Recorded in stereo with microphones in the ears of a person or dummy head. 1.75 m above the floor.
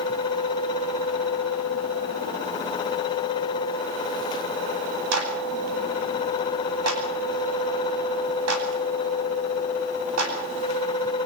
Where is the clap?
80° right, 9 m.